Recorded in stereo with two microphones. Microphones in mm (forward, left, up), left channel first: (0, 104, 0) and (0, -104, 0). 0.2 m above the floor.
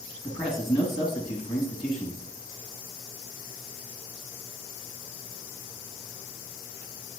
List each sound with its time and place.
0.2 s a man speaking: 25° left (ahead or behind), 1.8 m